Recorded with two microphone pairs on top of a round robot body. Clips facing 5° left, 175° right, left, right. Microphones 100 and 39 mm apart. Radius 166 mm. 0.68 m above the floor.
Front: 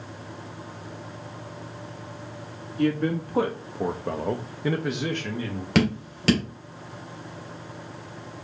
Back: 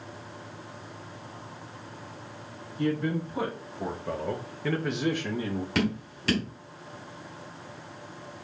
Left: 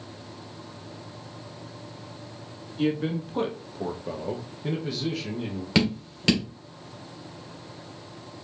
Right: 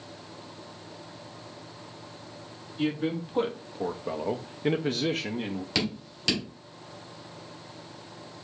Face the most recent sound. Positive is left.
turn(degrees=25)